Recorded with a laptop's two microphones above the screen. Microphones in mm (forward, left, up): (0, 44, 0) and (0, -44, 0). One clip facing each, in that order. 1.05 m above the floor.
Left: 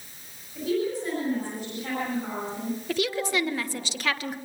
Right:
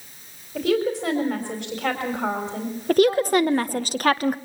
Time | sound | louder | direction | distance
0.6 | a woman speaking | right 5 dB | 85° right | 4.5 m
2.9 | a woman speaking | right 11 dB | 45° right (ahead or behind) | 1.1 m